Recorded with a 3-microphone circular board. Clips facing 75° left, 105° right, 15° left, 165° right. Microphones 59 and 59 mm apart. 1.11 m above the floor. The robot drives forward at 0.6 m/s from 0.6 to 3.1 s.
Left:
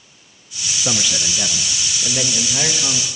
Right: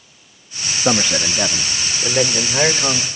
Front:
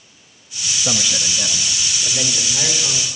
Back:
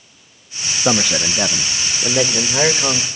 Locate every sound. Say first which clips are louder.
0.8 s a man speaking: right 6 dB, back 7 dB; 150° right, 0.8 m; by 3.0 s 170° right, 1.9 m